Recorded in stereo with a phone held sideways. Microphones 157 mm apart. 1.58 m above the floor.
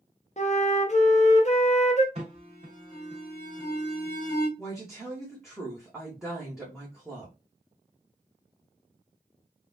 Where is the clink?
No clink in this recording.